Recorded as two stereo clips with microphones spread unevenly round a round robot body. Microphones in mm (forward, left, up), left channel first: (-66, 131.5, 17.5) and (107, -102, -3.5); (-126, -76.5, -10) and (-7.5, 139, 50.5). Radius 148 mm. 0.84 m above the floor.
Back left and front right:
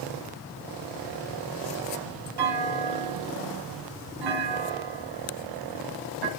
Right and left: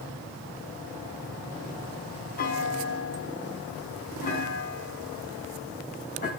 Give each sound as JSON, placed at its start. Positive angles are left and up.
{"t": 2.4, "sound": "a clunk", "azimuth_deg": -55, "distance_m": 4.0}